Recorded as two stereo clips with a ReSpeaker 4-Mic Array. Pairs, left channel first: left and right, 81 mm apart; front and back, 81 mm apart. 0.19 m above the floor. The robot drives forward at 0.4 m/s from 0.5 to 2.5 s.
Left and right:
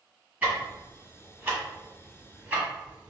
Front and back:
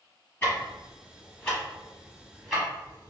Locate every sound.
0.4 s ticking: 40° right, 1.8 m; by 3.1 s 95° right, 1.7 m